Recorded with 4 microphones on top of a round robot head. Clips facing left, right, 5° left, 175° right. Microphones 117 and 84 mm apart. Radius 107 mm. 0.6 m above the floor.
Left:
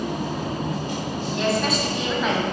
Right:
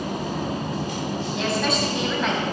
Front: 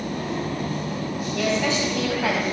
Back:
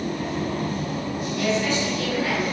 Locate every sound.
1.4 s a woman speaking: straight ahead, 4.5 m; by 2.4 s 5° left, 4 m